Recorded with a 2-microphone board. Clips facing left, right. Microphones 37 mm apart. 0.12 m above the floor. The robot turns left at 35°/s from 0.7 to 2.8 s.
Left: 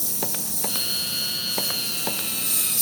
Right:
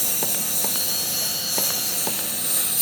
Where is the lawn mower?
60° right; by 2.8 s 135° right.